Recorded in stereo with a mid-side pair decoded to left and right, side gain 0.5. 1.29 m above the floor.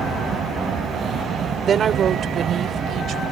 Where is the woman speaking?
50° right; by 3.2 s 60° right.